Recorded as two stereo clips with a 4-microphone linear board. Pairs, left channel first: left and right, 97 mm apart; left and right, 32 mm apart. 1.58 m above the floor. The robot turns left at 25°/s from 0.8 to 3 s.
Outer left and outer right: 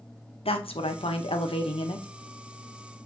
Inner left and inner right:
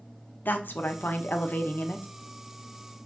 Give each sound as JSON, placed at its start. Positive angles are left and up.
{"t": 0.5, "sound": "a woman speaking", "azimuth_deg": 95, "distance_m": 0.7}